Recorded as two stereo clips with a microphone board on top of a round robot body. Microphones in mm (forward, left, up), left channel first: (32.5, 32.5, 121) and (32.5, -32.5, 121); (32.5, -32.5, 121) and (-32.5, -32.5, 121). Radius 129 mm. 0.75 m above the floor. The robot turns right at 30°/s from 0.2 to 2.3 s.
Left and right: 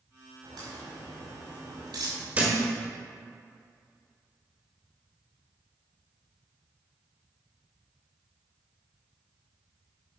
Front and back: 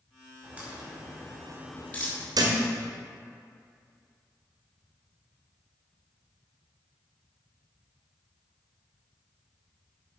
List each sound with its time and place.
0.4 s a crack: 115° right, 4.5 m; by 2.2 s 60° right, 4.5 m
2.4 s a thud: 160° right, 1.8 m